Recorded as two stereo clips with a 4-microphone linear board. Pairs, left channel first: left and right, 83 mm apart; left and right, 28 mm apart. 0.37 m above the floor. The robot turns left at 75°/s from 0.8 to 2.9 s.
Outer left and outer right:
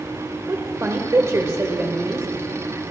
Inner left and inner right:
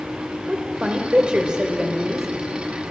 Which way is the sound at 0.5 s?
60° right.